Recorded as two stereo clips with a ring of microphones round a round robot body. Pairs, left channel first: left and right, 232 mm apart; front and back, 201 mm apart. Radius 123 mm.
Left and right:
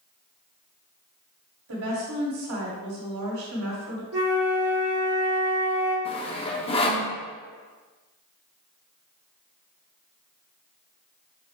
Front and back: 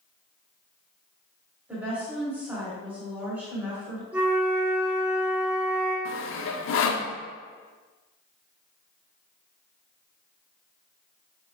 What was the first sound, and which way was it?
A woman speaking, 95° right.